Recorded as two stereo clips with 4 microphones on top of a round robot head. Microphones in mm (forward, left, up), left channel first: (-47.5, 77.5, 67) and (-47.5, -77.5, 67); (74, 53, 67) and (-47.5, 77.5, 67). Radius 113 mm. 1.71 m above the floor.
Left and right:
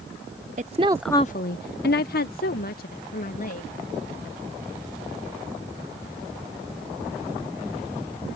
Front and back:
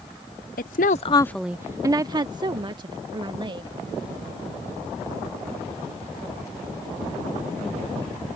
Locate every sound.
0.6 s a woman speaking: 35° right; by 3.7 s 120° left